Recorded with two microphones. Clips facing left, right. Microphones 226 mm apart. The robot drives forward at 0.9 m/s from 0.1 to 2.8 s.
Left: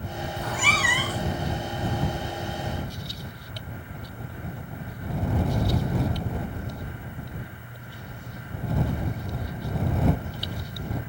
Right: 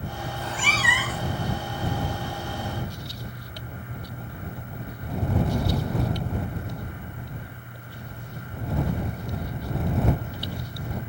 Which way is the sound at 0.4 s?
60° left (ahead or behind).